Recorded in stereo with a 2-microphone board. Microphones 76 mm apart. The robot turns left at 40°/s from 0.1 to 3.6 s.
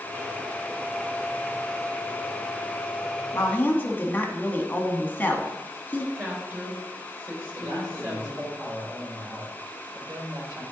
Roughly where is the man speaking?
Right.